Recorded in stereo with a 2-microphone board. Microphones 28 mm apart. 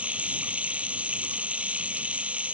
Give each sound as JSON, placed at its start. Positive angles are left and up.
{"t": 0.0, "sound": "running water", "side_deg": -65}